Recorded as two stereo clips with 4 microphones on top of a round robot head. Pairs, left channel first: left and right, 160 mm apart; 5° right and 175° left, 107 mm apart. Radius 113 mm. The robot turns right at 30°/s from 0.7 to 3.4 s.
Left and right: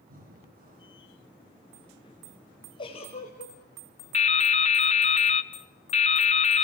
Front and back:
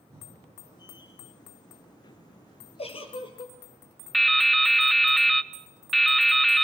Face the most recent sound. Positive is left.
turn(degrees=85)